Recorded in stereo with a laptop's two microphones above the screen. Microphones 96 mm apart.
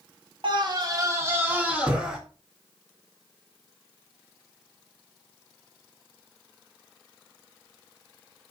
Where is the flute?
I don't hear a flute.